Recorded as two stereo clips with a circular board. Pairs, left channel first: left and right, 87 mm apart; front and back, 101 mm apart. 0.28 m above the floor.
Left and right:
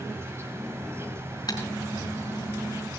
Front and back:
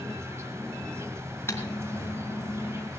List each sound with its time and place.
0.0 s an insect: 130° right, 1.8 m
1.5 s typing on a keyboard: 60° left, 3.5 m